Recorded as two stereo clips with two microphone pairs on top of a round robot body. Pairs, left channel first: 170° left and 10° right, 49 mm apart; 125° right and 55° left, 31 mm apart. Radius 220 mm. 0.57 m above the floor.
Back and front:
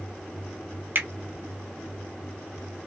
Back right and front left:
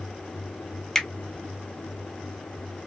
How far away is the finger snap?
About 1.8 m.